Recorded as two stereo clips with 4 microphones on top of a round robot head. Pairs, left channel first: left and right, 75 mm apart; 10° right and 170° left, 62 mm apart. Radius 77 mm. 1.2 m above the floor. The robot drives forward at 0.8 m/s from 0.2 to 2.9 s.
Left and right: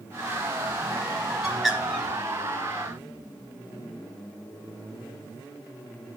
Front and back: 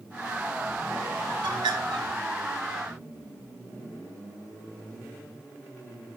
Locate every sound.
1.4 s a bird: 175° right, 3 m